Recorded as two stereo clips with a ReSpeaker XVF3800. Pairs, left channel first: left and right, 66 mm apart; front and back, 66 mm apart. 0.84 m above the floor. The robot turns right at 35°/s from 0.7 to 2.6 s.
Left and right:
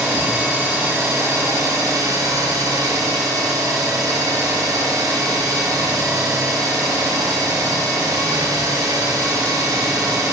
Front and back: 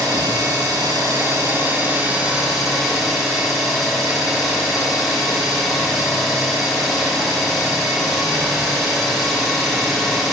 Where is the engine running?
160° right, 0.8 m; by 10.3 s 90° right, 0.8 m.